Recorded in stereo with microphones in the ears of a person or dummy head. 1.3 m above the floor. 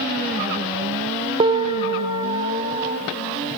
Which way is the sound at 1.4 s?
25° right (ahead or behind).